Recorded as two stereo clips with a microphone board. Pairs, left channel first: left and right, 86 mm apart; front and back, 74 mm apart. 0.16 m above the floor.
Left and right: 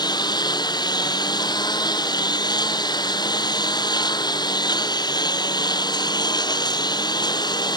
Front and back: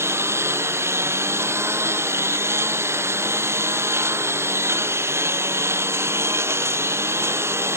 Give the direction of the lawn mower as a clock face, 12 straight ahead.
8 o'clock.